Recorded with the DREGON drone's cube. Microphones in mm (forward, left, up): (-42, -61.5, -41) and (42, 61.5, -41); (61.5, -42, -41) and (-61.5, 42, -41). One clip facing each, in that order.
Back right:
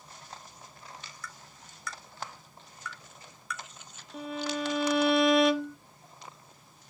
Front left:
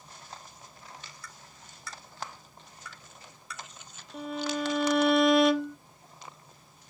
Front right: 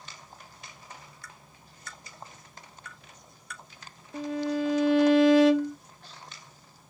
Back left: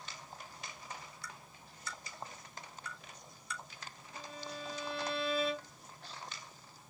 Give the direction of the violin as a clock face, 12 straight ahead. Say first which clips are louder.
Front left 1 dB, front right 17 dB; 1 o'clock.